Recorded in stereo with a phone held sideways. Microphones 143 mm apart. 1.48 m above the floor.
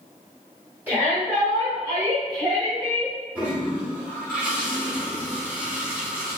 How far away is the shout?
About 2.0 m.